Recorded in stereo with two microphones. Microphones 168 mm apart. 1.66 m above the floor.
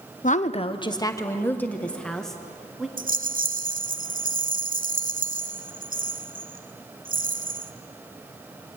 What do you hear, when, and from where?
0.2 s a woman speaking: 50° left (ahead or behind), 0.9 m; by 2.9 s centre (ahead or behind), 2.5 m
3.0 s a rattle: 55° right (ahead or behind), 0.7 m